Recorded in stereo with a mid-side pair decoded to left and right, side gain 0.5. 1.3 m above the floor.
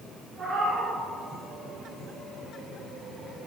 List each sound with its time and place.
0.4 s a cat meowing: 25° right, 4.5 m